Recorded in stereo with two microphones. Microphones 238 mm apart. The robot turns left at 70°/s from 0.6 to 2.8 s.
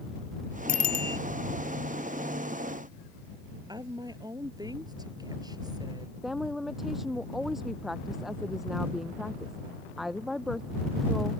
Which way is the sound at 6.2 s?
Centre (ahead or behind).